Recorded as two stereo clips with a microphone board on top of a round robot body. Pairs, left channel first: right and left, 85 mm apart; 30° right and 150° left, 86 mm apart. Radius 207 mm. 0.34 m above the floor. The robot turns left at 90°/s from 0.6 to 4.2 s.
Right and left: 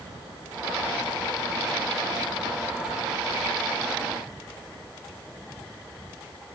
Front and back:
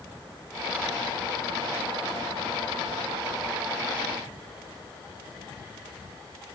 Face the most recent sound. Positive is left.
No sound to turn to.